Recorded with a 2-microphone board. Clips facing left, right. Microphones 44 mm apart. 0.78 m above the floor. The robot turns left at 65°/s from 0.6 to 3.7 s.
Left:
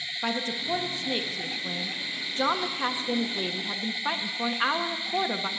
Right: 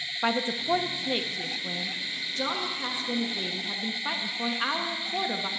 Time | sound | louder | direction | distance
0.2 | a woman speaking | right 3 dB | 130° right | 0.8 m